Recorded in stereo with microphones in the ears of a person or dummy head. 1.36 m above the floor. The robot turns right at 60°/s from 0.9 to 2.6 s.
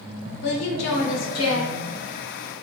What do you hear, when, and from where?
0.4 s a woman speaking: 70° left, 0.8 m; by 1.7 s 120° left, 0.8 m